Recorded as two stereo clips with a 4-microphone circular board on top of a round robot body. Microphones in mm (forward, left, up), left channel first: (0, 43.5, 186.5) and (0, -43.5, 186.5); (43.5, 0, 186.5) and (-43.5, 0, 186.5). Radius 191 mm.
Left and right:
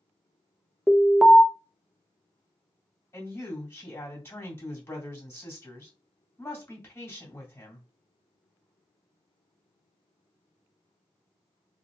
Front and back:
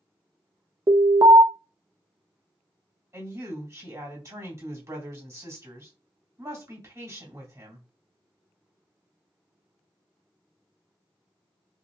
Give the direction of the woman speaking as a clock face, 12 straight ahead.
7 o'clock.